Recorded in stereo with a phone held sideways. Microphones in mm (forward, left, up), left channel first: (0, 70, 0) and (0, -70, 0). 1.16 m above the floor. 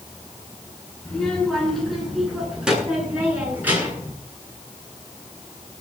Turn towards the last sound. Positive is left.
turn(degrees=-15)  # may be behind; listen again after turning